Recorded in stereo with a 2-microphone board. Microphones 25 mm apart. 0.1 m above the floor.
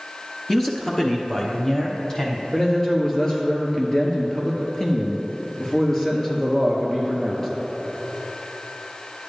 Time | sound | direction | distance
0.5 | a man speaking | 15° left (ahead or behind) | 1.3 m
2.5 | a man speaking | 20° left (ahead or behind) | 1.9 m